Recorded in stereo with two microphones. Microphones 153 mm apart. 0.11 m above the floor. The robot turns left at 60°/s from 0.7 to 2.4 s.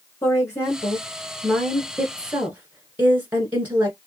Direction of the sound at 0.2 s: 20° left (ahead or behind).